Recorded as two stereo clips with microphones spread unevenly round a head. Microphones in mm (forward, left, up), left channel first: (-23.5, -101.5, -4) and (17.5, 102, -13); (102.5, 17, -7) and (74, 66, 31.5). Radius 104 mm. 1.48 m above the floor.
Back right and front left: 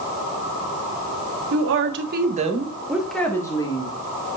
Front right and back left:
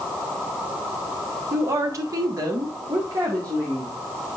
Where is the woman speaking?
105° left, 1.6 m; by 3.9 s 165° right, 2 m.